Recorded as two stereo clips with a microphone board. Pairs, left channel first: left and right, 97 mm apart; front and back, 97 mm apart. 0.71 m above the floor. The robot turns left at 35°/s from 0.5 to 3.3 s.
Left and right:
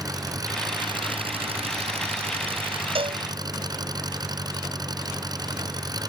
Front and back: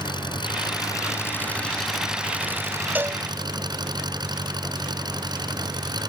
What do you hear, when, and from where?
0.0 s an engine running: 40° right; by 6.1 s 135° right
3.0 s a cowbell: 110° right; by 3.2 s 120° right